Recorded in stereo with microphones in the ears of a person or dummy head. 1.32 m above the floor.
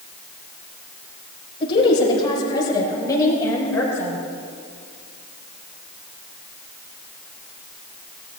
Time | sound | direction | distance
1.6 | a woman speaking | 25° left (ahead or behind) | 6 m